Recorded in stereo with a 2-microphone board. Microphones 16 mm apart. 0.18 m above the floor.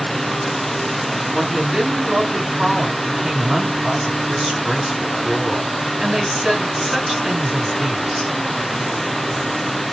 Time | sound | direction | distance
1.3 | a woman speaking | 45° right (ahead or behind) | 2 m